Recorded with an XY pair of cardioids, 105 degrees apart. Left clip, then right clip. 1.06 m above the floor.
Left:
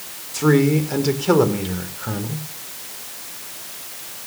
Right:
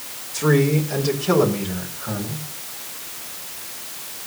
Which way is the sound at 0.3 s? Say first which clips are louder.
Left 2 dB; 30° left.